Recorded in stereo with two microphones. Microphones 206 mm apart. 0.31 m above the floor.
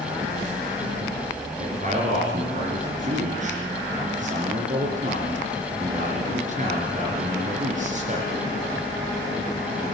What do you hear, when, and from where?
1.6 s a man speaking: 40° right (ahead or behind), 4.5 m